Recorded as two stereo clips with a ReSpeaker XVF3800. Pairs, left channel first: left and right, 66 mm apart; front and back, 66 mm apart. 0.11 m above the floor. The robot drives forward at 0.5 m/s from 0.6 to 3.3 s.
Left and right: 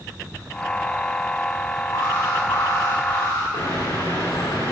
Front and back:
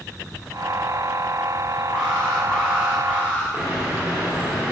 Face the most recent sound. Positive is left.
turn(degrees=110)